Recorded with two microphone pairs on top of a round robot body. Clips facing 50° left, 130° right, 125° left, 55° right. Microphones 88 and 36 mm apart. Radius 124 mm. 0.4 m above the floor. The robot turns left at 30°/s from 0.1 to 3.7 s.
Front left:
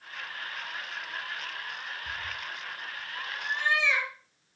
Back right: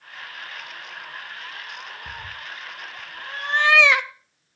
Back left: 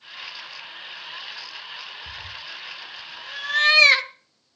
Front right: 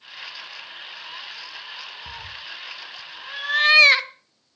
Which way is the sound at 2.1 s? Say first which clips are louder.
Even, even; 95° right.